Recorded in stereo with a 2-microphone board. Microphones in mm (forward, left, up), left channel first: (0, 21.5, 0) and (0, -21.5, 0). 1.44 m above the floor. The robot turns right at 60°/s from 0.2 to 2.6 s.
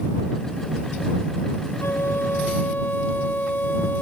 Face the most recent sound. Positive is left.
turn(degrees=135)